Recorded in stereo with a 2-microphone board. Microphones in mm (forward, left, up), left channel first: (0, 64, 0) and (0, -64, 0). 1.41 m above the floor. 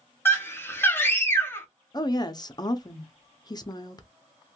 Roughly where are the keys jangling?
I don't hear keys jangling.